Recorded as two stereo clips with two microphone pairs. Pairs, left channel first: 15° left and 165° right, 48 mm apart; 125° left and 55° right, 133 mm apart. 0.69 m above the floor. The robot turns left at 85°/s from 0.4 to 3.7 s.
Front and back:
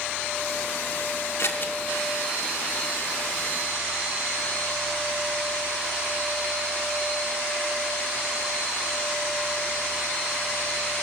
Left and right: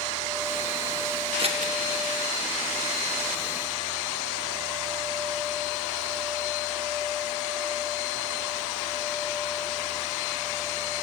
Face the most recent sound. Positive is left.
turn(degrees=155)